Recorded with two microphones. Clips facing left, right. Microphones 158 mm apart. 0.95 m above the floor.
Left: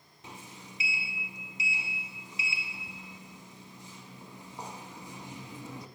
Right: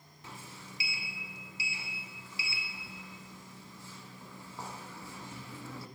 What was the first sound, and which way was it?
A sliding door, 20° left (ahead or behind).